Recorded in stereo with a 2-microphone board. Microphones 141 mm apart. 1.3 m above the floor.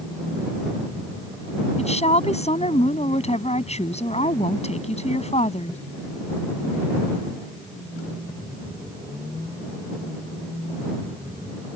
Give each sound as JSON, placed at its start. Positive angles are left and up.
{"t": 1.8, "sound": "a woman speaking", "side_deg": 50}